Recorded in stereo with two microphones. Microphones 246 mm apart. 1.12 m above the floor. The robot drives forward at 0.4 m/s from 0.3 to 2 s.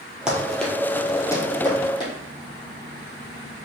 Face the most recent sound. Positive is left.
turn(degrees=20)  # may be behind; listen again after turning